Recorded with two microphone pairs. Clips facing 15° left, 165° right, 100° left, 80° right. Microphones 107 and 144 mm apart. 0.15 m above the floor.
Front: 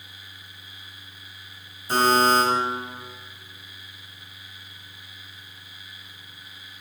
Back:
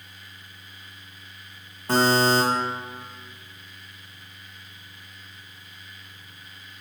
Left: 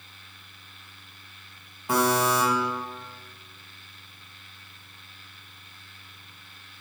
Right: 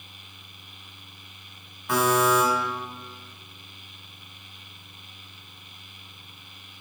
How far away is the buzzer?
About 1.8 m.